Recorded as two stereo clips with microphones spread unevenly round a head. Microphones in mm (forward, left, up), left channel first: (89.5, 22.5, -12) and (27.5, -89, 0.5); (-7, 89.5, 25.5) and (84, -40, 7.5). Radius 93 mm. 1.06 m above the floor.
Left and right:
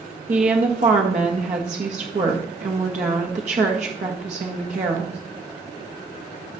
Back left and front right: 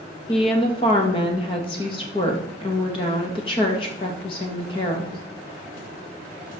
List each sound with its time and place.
0.3 s a woman speaking: 170° right, 1.5 m